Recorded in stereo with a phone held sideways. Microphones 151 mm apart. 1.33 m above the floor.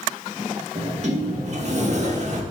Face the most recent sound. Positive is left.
turn(degrees=-50)  # may be behind; listen again after turning